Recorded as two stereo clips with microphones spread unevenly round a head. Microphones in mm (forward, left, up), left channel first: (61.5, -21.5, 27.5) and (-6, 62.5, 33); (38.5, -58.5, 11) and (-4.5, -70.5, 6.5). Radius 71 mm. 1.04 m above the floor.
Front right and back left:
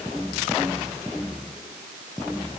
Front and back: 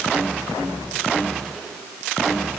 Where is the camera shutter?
No camera shutter in this recording.